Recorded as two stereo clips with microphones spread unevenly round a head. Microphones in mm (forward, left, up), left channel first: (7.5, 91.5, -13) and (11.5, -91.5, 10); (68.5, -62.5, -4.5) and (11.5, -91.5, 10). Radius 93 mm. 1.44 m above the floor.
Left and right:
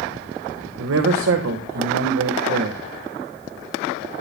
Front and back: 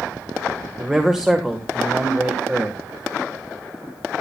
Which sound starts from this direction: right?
A man speaking, at 0.8 s.